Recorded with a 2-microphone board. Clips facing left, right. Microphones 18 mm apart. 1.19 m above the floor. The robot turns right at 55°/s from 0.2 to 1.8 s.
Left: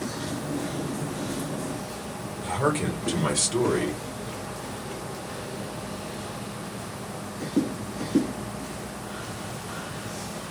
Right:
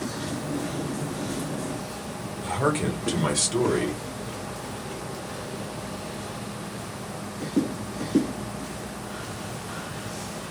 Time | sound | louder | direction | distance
2.4 | a man speaking | even | 15° right (ahead or behind) | 0.9 m